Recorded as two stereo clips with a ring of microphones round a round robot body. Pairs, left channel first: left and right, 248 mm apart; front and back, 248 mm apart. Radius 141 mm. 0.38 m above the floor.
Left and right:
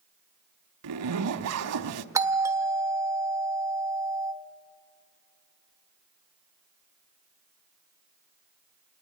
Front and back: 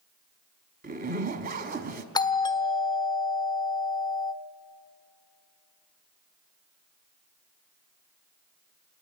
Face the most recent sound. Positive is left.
turn(degrees=-35)